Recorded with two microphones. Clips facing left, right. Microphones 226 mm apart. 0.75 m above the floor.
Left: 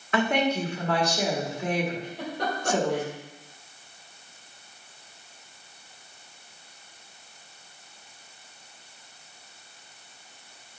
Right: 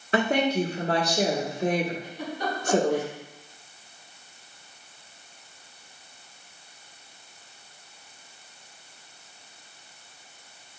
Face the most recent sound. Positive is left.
turn(degrees=75)  # may be behind; listen again after turning